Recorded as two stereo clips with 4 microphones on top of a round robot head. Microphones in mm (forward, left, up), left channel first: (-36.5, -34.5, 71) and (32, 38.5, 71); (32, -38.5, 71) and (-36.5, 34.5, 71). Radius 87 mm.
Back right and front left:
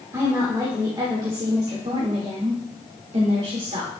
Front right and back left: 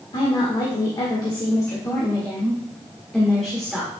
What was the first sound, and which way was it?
A woman speaking, 10° right.